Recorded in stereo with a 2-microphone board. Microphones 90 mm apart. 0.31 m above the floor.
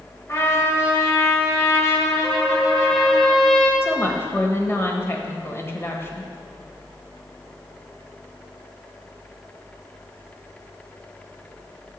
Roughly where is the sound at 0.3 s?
Left.